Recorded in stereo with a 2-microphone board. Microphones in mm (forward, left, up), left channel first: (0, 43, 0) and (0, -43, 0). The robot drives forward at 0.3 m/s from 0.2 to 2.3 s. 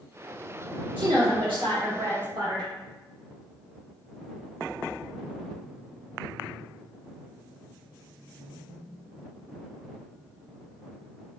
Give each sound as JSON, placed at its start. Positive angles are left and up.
{"t": 1.0, "sound": "a woman speaking", "side_deg": -80, "distance_m": 1.6}